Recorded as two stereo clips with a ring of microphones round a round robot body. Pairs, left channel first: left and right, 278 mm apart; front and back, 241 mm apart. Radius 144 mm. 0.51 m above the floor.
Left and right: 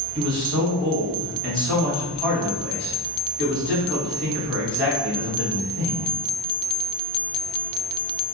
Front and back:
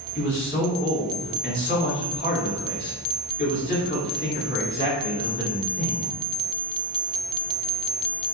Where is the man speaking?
5° left, 1.7 m.